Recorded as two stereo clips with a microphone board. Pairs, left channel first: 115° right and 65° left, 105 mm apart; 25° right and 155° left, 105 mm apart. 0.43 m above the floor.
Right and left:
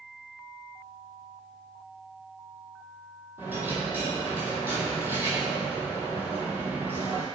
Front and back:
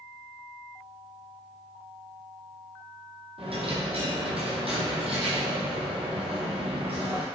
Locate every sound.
3.4 s a dropped coin: 135° left, 1.3 m